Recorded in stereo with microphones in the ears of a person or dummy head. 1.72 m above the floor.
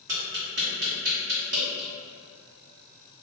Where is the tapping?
60° right (ahead or behind), 0.9 m.